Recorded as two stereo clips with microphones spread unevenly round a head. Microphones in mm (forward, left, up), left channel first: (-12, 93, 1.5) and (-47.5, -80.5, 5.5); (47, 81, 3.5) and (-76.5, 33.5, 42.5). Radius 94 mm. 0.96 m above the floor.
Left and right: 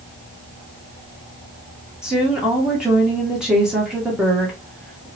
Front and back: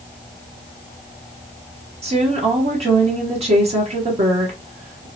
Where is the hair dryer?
I don't hear a hair dryer.